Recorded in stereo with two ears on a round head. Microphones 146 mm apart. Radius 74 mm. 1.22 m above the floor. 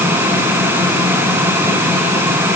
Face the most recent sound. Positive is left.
No sound to turn to.